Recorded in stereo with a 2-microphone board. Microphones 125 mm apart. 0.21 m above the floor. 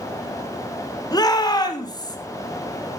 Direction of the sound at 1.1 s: 30° left (ahead or behind).